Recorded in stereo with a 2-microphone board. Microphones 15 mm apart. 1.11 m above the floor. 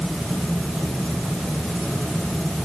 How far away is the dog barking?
No dog barking in this recording.